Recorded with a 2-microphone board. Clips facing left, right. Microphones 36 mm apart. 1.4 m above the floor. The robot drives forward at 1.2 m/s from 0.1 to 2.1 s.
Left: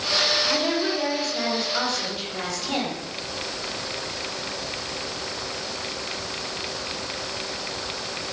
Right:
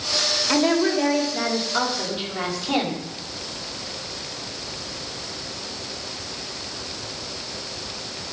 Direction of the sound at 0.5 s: 20° right (ahead or behind).